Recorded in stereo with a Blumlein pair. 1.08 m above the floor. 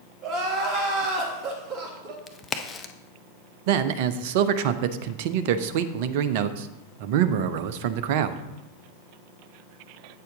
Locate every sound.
0.2 s crying: 25° right, 1.7 m
2.3 s a crack: 15° left, 0.7 m
3.7 s a man speaking: 50° right, 0.6 m